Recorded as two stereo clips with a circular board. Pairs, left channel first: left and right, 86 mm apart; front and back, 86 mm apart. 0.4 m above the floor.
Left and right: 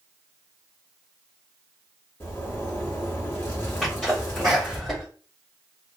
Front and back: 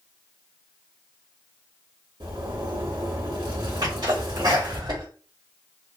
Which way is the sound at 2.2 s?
155° left.